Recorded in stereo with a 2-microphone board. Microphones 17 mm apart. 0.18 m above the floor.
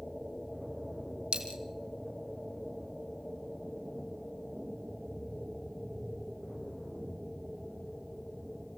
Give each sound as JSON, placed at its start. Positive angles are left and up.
{"t": 1.3, "sound": "a dropped coin", "side_deg": -80, "distance_m": 2.5}